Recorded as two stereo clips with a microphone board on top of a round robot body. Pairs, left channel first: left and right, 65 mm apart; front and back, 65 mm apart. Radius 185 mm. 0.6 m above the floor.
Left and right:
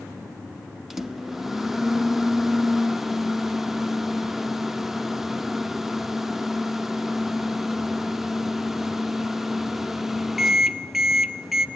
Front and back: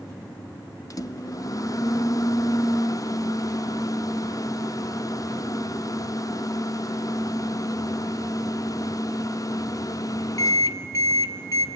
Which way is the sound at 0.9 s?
5° right.